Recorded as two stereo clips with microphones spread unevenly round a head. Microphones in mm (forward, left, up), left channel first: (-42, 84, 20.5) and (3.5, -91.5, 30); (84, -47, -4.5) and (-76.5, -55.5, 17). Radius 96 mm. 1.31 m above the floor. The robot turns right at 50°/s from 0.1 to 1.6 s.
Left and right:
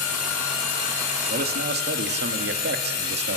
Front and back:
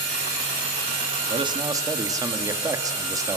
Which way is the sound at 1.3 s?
125° right.